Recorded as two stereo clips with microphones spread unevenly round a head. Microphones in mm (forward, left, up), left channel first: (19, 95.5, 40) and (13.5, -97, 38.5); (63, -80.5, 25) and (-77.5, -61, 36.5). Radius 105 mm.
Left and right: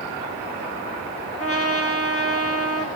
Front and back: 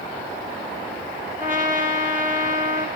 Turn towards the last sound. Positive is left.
turn(degrees=100)